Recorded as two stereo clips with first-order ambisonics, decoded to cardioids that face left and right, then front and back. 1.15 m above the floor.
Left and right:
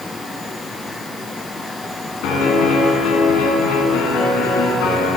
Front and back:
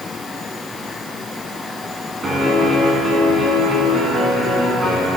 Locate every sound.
2.2 s a piano: 105° left, 2.5 m